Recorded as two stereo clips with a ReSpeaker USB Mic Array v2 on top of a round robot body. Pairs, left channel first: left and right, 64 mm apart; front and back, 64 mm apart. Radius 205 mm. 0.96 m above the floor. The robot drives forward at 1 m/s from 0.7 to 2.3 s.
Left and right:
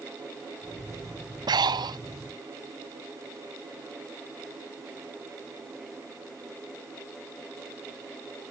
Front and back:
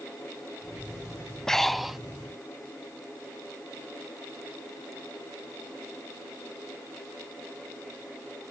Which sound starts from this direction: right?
Breathing, at 1.5 s.